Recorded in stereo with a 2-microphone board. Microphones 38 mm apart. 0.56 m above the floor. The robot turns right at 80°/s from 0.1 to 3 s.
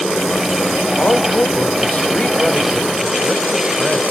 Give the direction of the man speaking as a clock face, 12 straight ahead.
11 o'clock.